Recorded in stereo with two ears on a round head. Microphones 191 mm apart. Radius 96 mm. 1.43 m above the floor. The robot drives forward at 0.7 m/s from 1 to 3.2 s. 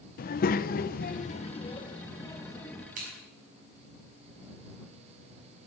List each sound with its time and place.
0.2 s a child speaking: 45° left (ahead or behind), 0.5 m; by 2.9 s 15° left (ahead or behind), 1.6 m
3.0 s scissors: 40° right (ahead or behind), 6 m; by 3.1 s 35° right (ahead or behind), 6 m